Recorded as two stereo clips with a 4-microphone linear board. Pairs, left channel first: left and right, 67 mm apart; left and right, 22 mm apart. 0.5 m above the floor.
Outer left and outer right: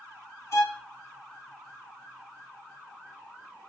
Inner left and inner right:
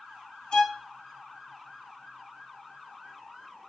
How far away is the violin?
About 1.4 m.